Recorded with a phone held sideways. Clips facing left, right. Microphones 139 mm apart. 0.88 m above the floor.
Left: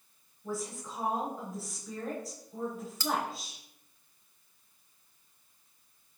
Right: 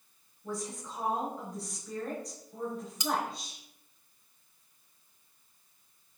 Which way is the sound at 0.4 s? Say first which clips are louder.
Left 1 dB; 5° left (ahead or behind).